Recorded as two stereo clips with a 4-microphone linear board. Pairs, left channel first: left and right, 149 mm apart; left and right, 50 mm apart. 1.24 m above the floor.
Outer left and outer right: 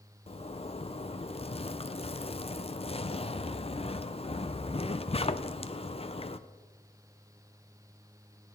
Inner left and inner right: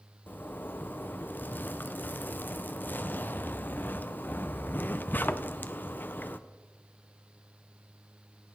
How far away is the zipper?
About 0.6 m.